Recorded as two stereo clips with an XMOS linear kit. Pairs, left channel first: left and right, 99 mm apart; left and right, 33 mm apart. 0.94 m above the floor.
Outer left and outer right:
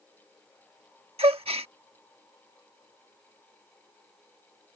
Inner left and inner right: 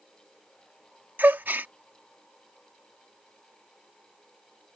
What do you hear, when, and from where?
1.2 s a gasp: 80° right